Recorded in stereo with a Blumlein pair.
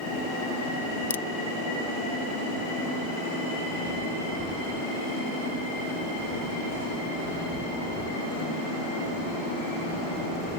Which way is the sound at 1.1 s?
70° left.